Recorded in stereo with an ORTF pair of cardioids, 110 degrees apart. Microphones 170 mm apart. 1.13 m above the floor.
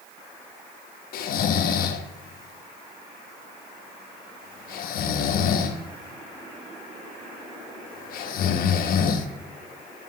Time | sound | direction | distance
1.1 | snoring | 60° left | 1.0 m